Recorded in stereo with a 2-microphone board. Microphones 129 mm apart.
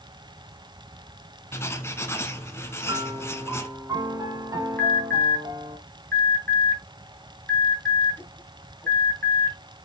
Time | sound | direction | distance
1.5 | writing | 20° left (ahead or behind) | 1.2 m
2.8 | a piano | 25° right (ahead or behind) | 1.2 m
4.8 | an alarm | 15° left (ahead or behind) | 2.5 m